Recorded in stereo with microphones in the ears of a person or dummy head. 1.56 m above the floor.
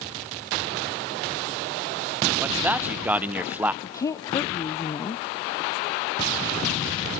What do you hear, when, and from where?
2.4 s a man speaking: 10° right (ahead or behind), 0.8 m
3.8 s a woman speaking: 20° left (ahead or behind), 0.7 m